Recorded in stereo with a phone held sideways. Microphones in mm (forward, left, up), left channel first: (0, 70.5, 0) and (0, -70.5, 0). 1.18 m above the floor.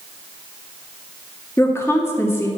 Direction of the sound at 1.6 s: 20° left (ahead or behind).